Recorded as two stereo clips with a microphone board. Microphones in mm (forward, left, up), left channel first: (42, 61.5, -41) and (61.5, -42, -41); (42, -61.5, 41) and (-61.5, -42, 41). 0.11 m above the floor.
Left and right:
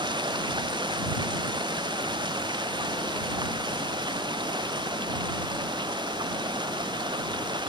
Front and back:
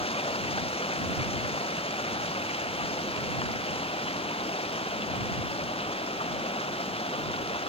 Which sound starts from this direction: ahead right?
Running water, at 0.0 s.